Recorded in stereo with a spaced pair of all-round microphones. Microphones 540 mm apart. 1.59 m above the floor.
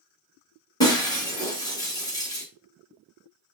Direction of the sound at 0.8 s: 5° left (ahead or behind).